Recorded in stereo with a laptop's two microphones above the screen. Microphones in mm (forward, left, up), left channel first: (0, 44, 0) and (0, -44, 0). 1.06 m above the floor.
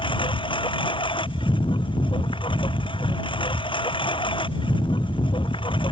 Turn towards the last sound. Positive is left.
turn(degrees=75)  # may be behind; listen again after turning